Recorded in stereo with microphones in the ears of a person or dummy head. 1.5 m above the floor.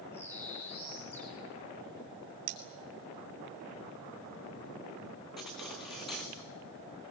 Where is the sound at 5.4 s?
5° left (ahead or behind), 0.7 m.